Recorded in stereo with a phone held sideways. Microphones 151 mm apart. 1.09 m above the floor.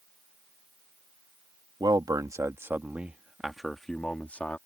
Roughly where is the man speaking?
Right.